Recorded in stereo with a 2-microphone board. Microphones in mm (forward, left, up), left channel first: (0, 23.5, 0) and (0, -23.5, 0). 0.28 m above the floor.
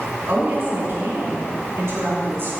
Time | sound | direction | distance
0.3 | a woman speaking | 60° right (ahead or behind) | 3 m